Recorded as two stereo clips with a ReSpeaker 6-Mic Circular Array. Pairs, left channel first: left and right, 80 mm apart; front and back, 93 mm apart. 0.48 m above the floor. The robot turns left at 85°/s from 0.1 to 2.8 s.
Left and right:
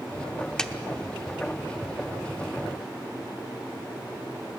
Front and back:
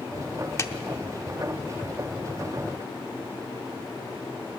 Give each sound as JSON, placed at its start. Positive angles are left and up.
{"t": 0.6, "sound": "a clap", "azimuth_deg": 15, "distance_m": 0.8}